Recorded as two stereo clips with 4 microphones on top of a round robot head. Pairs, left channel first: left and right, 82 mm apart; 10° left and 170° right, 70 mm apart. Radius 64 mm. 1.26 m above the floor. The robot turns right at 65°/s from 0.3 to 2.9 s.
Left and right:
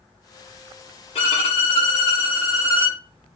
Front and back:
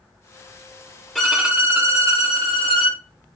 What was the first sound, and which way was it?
A violin, 90° left.